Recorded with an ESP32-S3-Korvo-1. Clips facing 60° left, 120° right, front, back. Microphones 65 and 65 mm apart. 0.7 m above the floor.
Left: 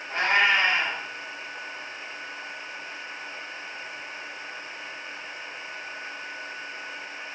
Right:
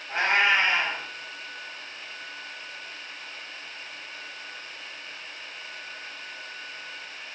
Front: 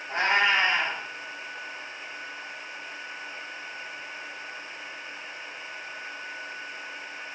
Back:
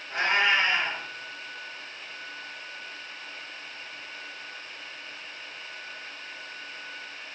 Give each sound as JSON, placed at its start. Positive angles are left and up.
{"t": 0.1, "sound": "a cat meowing", "azimuth_deg": -35, "distance_m": 2.5}